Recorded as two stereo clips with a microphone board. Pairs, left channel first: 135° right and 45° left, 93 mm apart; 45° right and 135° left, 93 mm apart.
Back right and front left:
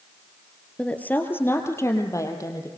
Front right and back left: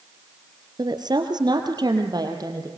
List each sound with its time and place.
0.8 s a woman speaking: 150° left, 2.5 m; by 2.7 s 175° left, 5 m